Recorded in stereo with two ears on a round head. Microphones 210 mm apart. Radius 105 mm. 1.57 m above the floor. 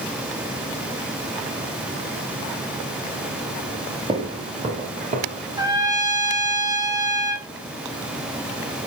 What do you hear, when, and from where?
4.1 s footsteps: 20° right (ahead or behind), 1.7 m; by 5.4 s 35° right (ahead or behind), 2 m
5.6 s a trumpet: 15° right (ahead or behind), 1.3 m